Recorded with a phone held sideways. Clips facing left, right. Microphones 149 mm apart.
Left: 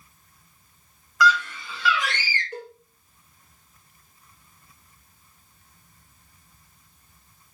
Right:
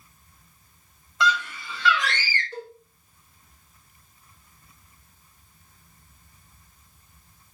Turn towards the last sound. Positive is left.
turn(degrees=15)  # may be behind; listen again after turning